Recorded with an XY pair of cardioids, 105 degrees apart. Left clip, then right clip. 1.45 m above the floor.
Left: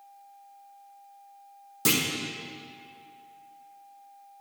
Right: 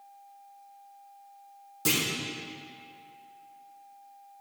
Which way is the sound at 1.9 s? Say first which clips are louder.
Left 2 dB; 35° left.